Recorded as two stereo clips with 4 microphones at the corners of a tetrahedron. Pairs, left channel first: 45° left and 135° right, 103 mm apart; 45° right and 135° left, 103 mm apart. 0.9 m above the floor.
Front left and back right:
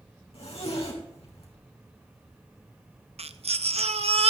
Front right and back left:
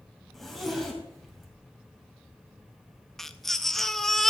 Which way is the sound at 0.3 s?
45° left.